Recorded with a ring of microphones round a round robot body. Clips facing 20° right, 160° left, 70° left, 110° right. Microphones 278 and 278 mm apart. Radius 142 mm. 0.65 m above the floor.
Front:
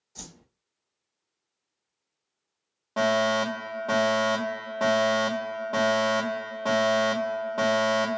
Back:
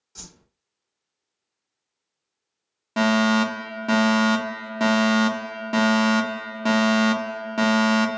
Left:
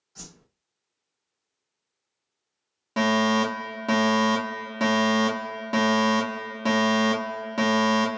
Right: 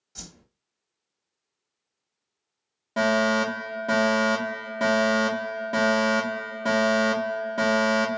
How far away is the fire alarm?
About 2.0 m.